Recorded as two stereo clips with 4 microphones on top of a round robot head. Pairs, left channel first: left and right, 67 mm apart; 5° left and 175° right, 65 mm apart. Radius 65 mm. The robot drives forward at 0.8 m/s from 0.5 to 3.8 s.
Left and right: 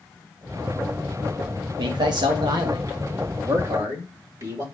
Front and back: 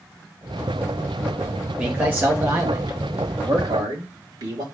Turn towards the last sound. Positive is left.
turn(degrees=-135)